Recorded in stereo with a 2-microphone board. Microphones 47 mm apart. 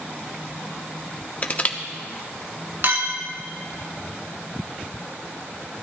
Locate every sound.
1.4 s crushing: 35° left (ahead or behind), 0.9 m
2.8 s a clink: 55° right (ahead or behind), 1.5 m